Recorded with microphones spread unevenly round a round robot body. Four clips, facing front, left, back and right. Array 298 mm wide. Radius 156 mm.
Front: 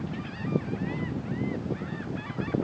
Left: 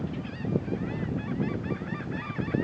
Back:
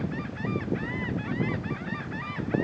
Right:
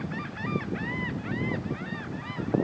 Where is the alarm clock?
No alarm clock in this recording.